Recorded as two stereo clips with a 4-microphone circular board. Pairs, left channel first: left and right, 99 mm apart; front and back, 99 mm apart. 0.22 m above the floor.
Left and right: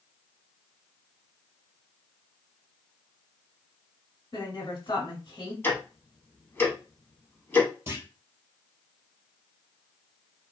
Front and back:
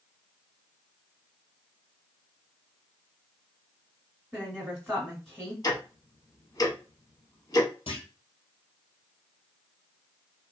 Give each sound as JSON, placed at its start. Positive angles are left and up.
{"t": 4.3, "sound": "a woman speaking", "azimuth_deg": 85, "distance_m": 1.3}
{"t": 5.6, "sound": "ticking", "azimuth_deg": 30, "distance_m": 0.8}
{"t": 7.9, "sound": "a clunk", "azimuth_deg": -25, "distance_m": 1.3}